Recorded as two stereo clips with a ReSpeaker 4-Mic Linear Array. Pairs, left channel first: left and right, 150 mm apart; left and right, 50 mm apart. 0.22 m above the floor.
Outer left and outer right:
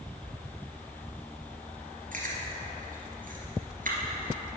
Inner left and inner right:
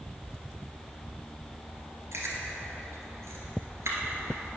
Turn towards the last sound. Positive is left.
turn(degrees=-70)  # may be behind; listen again after turning